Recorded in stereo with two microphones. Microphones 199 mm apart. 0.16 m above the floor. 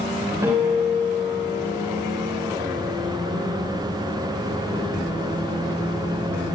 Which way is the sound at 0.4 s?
15° right (ahead or behind).